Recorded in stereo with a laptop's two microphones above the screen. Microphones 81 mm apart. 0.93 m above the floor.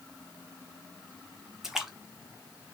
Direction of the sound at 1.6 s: 5° right (ahead or behind).